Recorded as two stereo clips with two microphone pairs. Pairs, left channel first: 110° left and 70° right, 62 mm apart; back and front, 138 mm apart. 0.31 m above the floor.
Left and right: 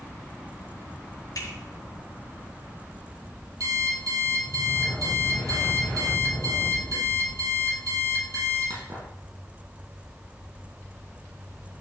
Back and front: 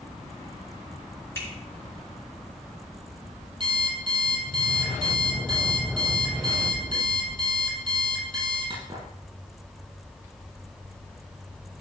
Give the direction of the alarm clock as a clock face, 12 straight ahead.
2 o'clock.